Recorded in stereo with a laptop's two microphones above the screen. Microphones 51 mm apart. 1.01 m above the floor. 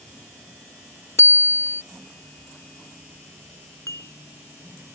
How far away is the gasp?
I don't hear a gasp.